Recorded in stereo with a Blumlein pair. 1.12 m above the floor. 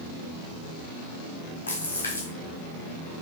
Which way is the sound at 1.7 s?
70° left.